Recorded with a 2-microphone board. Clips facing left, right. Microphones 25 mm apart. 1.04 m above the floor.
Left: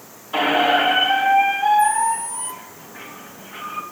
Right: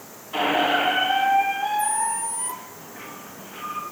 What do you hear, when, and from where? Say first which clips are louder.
0.3 s a squeak: left 4 dB; 30° left (ahead or behind), 1.0 m